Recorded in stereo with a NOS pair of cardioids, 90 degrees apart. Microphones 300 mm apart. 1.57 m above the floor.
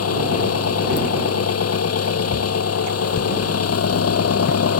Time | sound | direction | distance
0.0 | an engine running | 55° left | ?